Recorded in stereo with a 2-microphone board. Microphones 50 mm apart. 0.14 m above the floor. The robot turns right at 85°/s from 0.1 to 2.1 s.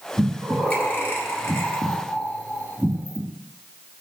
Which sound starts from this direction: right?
Breathing, at 0.2 s.